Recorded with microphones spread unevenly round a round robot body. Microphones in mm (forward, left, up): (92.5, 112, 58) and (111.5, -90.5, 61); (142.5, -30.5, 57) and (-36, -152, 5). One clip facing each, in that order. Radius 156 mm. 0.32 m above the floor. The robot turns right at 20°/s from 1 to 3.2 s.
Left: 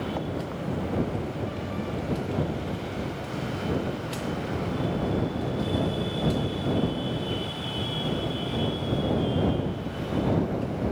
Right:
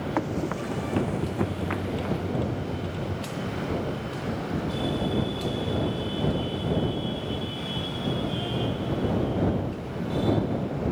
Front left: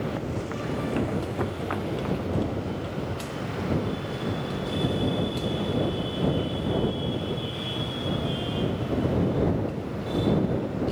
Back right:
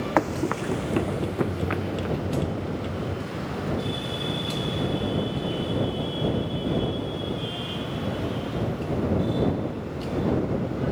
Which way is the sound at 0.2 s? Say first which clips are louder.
Right 3 dB, back right 6 dB; 135° right.